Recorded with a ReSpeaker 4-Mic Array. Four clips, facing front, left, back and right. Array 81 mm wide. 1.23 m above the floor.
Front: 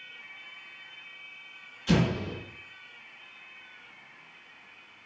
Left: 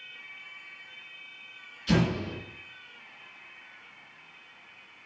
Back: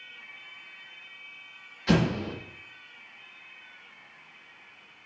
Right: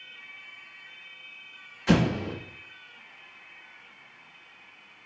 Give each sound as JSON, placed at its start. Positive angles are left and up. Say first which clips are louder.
{"t": 1.9, "sound": "an explosion", "louder": "right 3 dB, back 1 dB", "azimuth_deg": -120, "distance_m": 1.2}